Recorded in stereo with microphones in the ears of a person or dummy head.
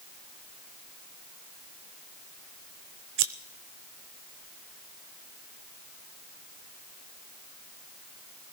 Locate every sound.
3.2 s scissors: 55° right (ahead or behind), 0.7 m